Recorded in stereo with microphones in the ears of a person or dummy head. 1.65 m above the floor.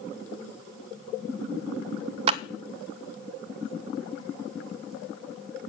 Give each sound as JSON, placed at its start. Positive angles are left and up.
{"t": 2.3, "sound": "a clap", "side_deg": -40, "distance_m": 0.5}